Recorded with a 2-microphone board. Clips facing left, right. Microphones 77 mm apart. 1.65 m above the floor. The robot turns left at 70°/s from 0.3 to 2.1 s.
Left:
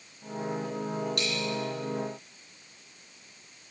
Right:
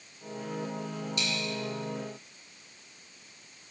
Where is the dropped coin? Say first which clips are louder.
Left 2 dB; 60° left (ahead or behind), 5.5 m; by 1.4 s 75° left (ahead or behind), 5.5 m.